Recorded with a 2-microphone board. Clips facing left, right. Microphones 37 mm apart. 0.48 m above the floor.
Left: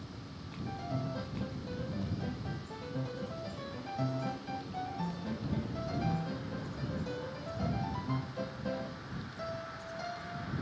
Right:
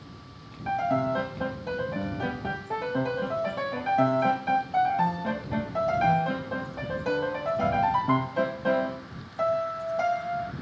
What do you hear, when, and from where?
0.7 s a piano: 80° right